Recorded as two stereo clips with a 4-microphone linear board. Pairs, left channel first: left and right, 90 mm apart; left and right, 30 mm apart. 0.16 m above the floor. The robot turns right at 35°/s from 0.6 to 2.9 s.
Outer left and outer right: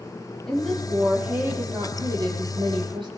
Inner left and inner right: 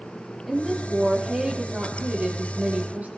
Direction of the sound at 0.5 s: 175° left.